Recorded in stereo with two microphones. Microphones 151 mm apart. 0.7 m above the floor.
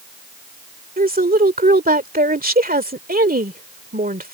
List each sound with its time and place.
1.0 s a woman speaking: 75° right (ahead or behind)